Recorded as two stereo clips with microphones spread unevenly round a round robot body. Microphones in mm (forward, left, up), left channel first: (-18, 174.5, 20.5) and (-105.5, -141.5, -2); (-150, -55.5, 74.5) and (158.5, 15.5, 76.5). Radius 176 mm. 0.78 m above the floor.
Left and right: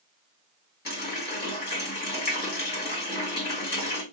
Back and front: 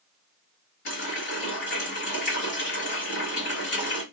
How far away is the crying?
No crying in this recording.